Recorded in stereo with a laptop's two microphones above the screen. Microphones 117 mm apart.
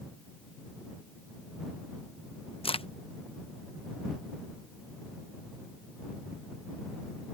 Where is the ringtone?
I don't hear a ringtone.